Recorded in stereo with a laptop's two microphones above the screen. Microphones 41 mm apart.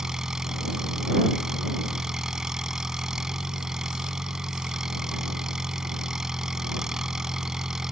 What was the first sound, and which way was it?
An engine running, 15° right (ahead or behind).